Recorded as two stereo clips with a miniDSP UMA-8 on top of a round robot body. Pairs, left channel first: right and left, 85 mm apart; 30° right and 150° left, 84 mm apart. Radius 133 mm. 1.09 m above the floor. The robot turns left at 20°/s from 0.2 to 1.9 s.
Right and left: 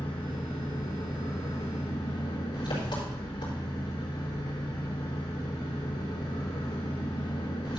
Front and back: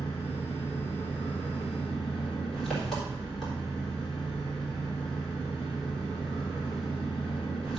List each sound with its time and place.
0.0 s an engine running: 85° right, 4 m; by 7.8 s 120° right, 4 m